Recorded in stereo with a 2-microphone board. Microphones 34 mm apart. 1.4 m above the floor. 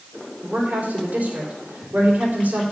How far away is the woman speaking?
About 4 m.